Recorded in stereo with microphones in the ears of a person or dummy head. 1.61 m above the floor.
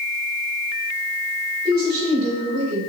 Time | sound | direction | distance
1.6 | a woman speaking | 25° right (ahead or behind) | 3 m